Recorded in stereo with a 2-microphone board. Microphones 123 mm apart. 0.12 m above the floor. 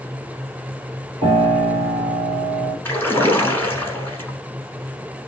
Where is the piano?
50° right (ahead or behind), 2 m.